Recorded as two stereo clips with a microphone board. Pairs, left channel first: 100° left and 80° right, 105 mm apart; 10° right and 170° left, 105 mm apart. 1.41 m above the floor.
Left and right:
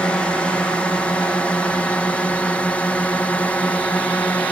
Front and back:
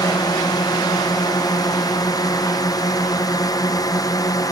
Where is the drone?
25° left; by 4.5 s 30° left.